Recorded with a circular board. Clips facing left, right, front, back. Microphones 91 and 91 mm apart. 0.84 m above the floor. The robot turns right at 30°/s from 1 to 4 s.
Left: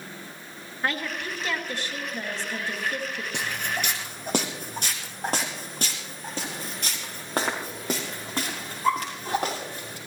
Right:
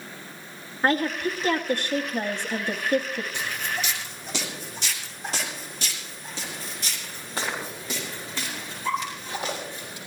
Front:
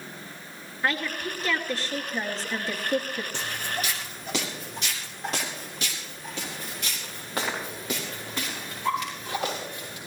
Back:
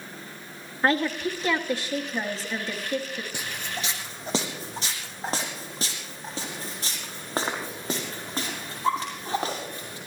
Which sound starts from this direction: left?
Footsteps, at 3.3 s.